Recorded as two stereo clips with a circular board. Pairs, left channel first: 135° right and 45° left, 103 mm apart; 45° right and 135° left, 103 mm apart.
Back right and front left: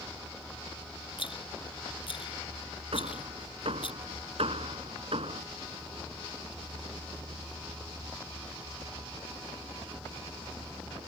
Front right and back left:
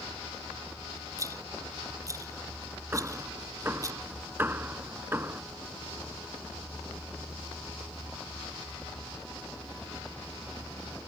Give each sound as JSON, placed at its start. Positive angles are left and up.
{"t": 1.2, "sound": "a rattle", "azimuth_deg": -165}
{"t": 2.9, "sound": "hammering", "azimuth_deg": 65}